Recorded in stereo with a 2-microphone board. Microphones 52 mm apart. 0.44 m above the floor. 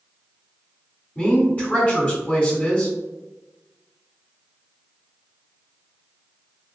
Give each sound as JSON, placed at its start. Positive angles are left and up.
{"t": 1.1, "sound": "a woman speaking", "side_deg": 30, "distance_m": 1.6}